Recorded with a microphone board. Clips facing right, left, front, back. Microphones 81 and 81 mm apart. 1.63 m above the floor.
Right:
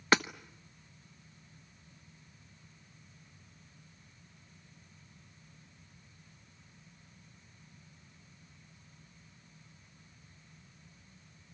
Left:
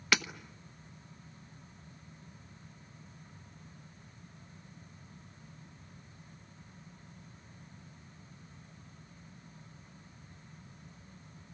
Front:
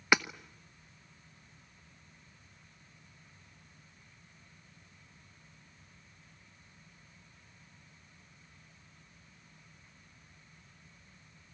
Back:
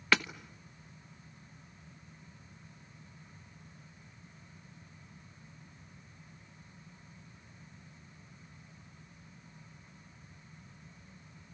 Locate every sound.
0.1 s hammering: 65° right, 0.9 m